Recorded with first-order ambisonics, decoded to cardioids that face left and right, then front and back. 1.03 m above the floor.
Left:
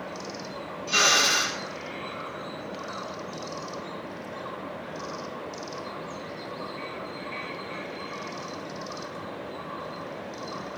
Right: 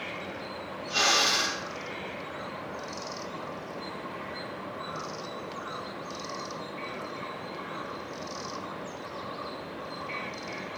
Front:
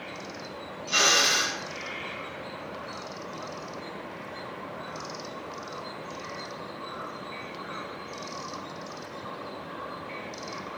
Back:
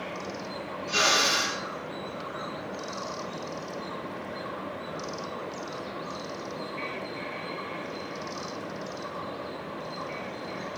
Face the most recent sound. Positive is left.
turn(degrees=50)